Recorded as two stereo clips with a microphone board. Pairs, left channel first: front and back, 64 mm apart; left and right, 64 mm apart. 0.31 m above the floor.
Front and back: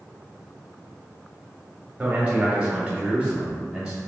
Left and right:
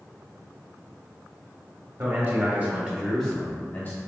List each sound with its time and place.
2.0 s a man speaking: 120° right, 1.1 m; by 4.0 s 105° left, 0.9 m